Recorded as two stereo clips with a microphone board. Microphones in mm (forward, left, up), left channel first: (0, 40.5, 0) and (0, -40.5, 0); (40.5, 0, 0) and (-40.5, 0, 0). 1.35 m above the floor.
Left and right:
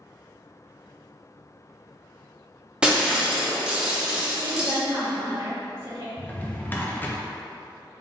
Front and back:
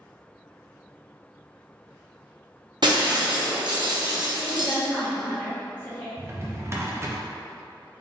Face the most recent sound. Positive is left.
turn(degrees=145)